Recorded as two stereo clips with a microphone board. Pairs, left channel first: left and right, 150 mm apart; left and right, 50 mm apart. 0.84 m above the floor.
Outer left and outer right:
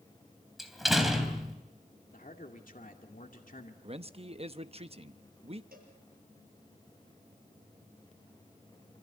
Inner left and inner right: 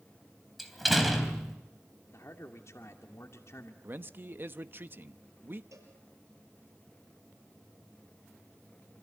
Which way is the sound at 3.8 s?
40° right (ahead or behind).